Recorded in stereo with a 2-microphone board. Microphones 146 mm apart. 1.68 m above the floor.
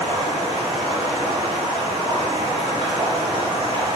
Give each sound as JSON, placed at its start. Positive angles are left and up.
{"t": 0.0, "sound": "running water", "side_deg": -40, "distance_m": 1.9}